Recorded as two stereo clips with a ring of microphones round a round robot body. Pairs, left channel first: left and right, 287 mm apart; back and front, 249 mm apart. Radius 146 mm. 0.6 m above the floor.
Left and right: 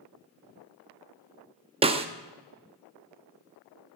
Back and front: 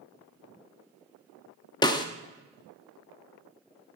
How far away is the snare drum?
About 0.6 m.